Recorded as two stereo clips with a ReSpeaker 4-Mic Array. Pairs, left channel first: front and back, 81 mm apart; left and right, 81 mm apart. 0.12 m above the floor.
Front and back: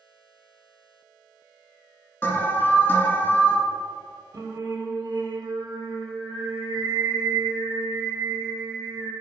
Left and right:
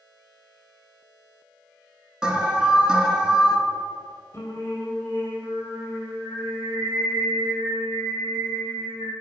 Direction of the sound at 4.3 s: 145° left.